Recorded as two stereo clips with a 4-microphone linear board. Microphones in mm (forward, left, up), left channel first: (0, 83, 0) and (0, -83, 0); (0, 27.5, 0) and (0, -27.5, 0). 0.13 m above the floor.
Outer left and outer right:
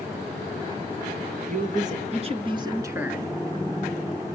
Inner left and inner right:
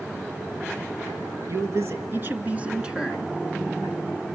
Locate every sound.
1.5 s a man speaking: 55° right (ahead or behind), 2.5 m; by 3.3 s centre (ahead or behind), 1.7 m